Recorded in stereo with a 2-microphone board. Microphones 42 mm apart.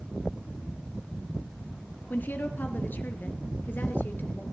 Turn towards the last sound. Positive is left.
turn(degrees=50)  # may be behind; listen again after turning